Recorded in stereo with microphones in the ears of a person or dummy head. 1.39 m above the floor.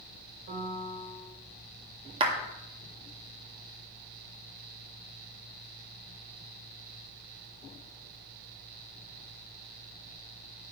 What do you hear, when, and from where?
0.5 s a piano: 40° right (ahead or behind), 2.5 m
2.2 s a clap: 35° right (ahead or behind), 1.8 m